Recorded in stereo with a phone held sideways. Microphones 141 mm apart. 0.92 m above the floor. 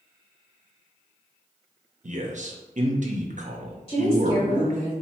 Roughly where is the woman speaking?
Left.